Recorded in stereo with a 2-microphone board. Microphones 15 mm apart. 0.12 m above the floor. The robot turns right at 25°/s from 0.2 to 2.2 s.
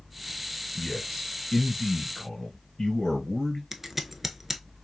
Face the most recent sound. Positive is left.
turn(degrees=-15)  # may be behind; listen again after turning